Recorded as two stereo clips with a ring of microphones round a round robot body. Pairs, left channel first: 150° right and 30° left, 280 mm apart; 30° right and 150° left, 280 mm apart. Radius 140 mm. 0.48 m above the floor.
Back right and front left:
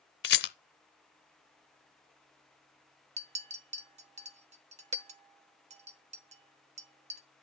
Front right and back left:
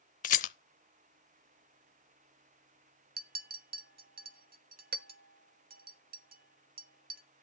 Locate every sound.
0.2 s a rattle: 95° right, 0.6 m
3.2 s a clink: 95° left, 0.9 m